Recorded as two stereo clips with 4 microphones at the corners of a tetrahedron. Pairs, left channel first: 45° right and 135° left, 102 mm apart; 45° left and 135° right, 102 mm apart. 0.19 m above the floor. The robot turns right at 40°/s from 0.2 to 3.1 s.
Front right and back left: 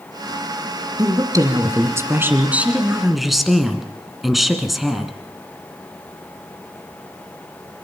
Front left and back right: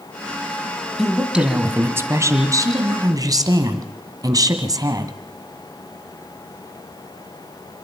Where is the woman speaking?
140° left, 1.8 m; by 5.1 s 135° right, 1.8 m.